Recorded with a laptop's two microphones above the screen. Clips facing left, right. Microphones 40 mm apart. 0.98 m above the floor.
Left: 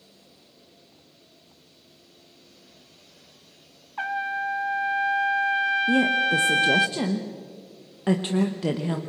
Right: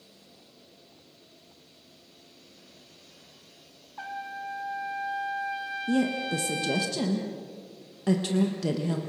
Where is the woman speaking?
30° left (ahead or behind), 1.0 m.